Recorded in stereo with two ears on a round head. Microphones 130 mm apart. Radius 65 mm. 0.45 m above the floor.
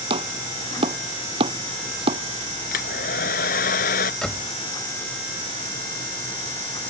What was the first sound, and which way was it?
Chopping, 35° right (ahead or behind).